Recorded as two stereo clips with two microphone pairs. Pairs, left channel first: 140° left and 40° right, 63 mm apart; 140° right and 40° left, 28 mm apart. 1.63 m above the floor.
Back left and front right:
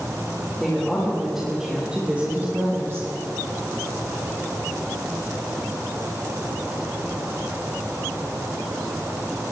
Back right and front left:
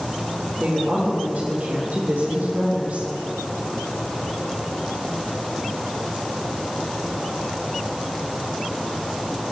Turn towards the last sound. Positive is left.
turn(degrees=0)